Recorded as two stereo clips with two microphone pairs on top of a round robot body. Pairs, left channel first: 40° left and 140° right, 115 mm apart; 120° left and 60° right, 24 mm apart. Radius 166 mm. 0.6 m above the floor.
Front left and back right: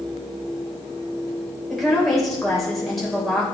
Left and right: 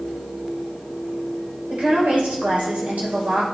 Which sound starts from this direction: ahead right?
A woman speaking, at 1.7 s.